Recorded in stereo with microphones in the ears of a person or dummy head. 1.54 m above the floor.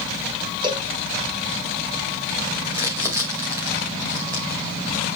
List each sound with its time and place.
0.6 s a cowbell: 25° right (ahead or behind), 1.4 m
2.7 s crumpling: 25° right (ahead or behind), 1.9 m